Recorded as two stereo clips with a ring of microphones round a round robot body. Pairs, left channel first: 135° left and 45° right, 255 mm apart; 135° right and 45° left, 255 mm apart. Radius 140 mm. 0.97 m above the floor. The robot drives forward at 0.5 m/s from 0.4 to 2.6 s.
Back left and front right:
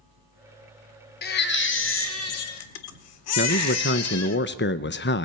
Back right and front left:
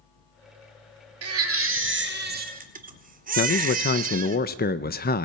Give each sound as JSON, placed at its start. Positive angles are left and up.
{"t": 1.2, "sound": "a baby crying", "azimuth_deg": 80, "distance_m": 1.6}
{"t": 3.4, "sound": "a man speaking", "azimuth_deg": 175, "distance_m": 0.7}